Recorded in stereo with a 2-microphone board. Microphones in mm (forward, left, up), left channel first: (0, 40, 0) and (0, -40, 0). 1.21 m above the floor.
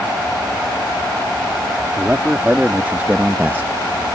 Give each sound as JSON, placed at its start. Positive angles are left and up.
{"t": 2.0, "sound": "a man speaking", "side_deg": -20}